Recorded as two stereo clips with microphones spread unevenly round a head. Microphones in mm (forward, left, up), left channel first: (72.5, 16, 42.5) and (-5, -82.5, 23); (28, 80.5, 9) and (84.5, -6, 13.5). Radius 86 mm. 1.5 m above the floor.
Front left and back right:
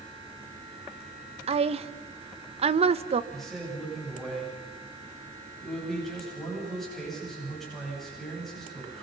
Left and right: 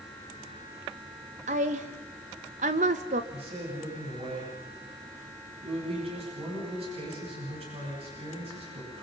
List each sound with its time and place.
1.5 s a woman speaking: 85° right, 1.3 m
3.3 s a man speaking: 35° right, 9.5 m